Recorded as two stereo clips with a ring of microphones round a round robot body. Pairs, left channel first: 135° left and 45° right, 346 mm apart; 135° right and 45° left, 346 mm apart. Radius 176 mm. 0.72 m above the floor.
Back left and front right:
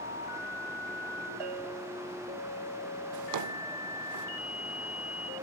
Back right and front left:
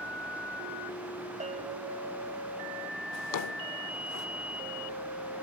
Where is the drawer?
90° right.